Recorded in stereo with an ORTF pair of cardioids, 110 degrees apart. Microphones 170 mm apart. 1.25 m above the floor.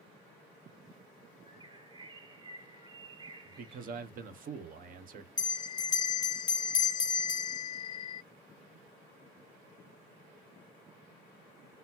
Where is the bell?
25° left, 0.6 m.